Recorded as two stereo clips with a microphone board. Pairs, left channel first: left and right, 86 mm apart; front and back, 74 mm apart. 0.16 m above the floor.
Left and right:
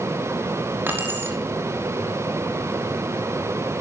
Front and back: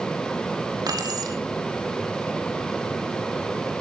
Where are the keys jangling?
155° right, 5.5 m.